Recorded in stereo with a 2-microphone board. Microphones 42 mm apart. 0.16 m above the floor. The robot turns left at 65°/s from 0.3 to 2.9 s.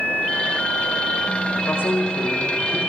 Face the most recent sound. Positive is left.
turn(degrees=45)